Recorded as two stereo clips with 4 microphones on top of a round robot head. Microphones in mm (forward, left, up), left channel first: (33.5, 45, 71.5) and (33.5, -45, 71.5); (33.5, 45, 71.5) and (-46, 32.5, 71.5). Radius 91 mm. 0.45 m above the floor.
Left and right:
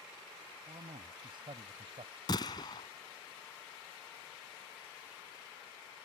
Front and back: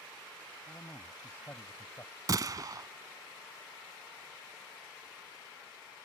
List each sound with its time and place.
0.7 s a man speaking: 60° right
2.3 s a gunshot: 145° left